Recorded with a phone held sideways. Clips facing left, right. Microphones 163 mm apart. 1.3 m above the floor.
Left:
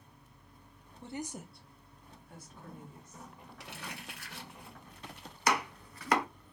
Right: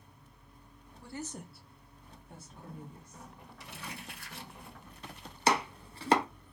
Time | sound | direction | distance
1.0 | a woman speaking | 25° left (ahead or behind) | 0.5 m
3.6 | crumpling | 70° left (ahead or behind) | 1.2 m
5.5 | chopping | 30° right (ahead or behind) | 0.5 m